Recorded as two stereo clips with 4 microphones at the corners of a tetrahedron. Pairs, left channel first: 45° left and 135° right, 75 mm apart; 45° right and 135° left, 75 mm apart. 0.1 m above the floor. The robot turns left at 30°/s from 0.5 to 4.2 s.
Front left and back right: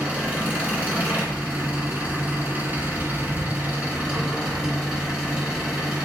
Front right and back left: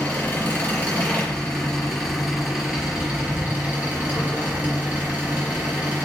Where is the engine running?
85° right, 1.2 m; by 6.1 s 165° left, 1.2 m.